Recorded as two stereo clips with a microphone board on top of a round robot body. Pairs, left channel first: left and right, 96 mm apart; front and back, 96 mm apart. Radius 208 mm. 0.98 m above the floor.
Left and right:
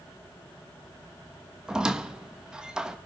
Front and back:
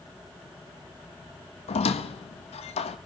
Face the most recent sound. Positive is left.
turn(degrees=-10)